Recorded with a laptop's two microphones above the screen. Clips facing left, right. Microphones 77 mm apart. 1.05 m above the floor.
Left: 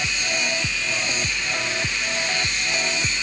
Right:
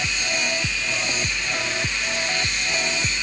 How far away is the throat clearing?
I don't hear throat clearing.